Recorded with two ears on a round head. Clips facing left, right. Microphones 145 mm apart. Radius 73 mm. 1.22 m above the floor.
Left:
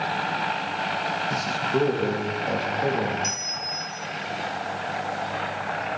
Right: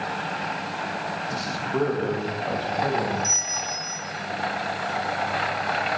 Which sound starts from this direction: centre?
A man speaking, at 1.3 s.